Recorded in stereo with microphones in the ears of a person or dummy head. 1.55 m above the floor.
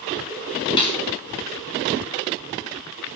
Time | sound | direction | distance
0.8 | a snare drum | 30° left (ahead or behind) | 5.5 m